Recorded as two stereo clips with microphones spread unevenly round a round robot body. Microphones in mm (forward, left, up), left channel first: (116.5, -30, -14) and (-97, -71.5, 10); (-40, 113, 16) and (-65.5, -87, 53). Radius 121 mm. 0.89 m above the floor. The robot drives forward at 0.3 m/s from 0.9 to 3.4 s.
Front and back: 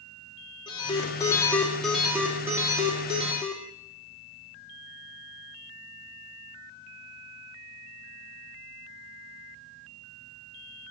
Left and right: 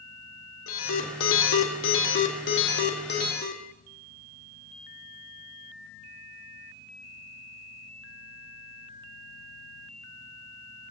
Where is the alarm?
85° left, 1.0 m; by 3.6 s 120° left, 1.2 m.